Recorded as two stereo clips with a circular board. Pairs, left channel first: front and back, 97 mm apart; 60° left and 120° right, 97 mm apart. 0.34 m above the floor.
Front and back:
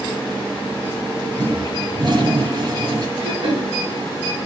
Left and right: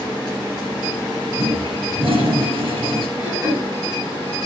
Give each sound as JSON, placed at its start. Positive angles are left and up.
{"t": 1.4, "sound": "a toilet flushing", "azimuth_deg": -140, "distance_m": 5.5}
{"t": 3.2, "sound": "throat clearing", "azimuth_deg": 180, "distance_m": 6.5}